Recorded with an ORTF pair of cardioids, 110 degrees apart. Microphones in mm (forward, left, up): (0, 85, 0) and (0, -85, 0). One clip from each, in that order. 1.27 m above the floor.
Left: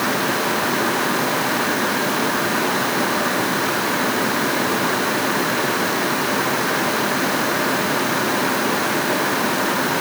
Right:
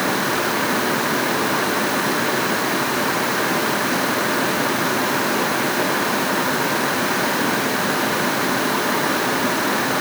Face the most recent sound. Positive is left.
No sound to turn to.